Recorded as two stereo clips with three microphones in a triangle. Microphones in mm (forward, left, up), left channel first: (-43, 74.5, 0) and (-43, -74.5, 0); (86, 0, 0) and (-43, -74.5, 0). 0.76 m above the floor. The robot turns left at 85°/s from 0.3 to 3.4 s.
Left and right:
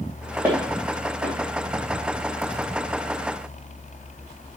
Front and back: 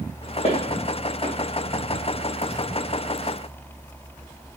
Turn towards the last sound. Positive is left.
turn(degrees=95)